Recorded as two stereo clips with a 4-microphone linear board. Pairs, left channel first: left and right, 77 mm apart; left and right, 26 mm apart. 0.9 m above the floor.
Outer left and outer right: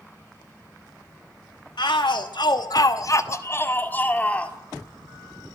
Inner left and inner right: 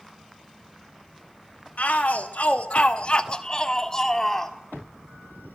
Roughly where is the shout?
Left.